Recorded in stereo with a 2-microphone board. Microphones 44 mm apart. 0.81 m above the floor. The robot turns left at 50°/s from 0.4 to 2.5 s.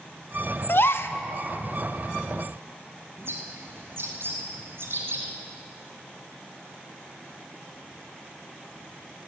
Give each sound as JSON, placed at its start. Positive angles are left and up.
{"t": 0.7, "sound": "a gasp", "side_deg": 60, "distance_m": 0.6}
{"t": 3.2, "sound": "a bird", "side_deg": -65, "distance_m": 2.5}